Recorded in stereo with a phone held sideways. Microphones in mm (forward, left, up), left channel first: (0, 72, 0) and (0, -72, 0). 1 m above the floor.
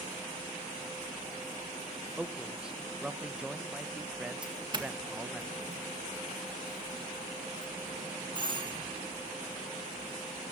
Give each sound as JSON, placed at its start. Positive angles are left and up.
{"t": 2.2, "sound": "a man speaking", "side_deg": -5, "distance_m": 0.9}
{"t": 4.4, "sound": "a doorbell", "side_deg": -30, "distance_m": 1.9}